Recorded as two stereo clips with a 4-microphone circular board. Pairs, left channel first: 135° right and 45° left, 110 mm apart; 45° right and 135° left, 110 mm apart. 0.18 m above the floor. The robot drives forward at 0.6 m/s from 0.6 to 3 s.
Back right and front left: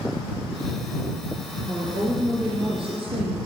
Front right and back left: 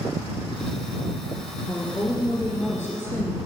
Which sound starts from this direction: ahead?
A woman speaking, at 1.7 s.